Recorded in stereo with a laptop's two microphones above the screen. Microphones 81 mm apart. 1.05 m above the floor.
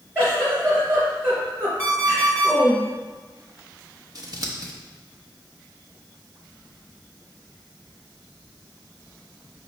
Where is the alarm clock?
25° right (ahead or behind), 2.5 m.